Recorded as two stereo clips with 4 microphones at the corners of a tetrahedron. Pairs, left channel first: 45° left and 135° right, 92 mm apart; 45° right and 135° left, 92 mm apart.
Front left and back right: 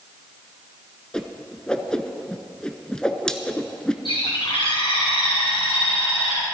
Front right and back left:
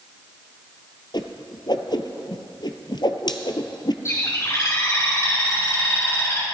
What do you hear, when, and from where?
1.1 s a whoosh: 35° right, 0.7 m
4.0 s a bird: 15° left, 3 m